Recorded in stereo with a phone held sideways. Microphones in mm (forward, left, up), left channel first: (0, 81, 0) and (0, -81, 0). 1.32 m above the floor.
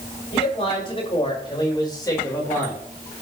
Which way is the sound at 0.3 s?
40° left (ahead or behind).